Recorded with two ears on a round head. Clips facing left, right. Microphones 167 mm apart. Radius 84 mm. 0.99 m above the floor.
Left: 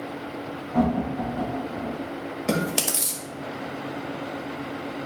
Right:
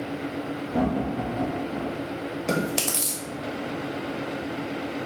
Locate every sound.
0.7 s laughter: 40° right (ahead or behind), 4 m; by 2.0 s 50° right (ahead or behind), 4 m
2.5 s chewing: 5° left (ahead or behind), 1.6 m